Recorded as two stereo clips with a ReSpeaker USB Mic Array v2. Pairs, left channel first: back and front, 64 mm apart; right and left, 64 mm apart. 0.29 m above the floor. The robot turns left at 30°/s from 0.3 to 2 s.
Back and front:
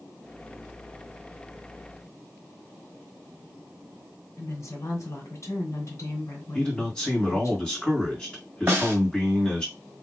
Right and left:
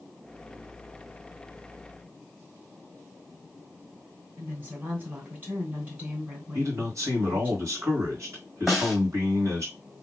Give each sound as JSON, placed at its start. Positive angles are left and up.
{"t": 4.4, "sound": "a woman speaking", "azimuth_deg": 150, "distance_m": 2.5}
{"t": 6.5, "sound": "a man speaking", "azimuth_deg": 105, "distance_m": 2.5}
{"t": 8.7, "sound": "a snare drum", "azimuth_deg": 10, "distance_m": 1.5}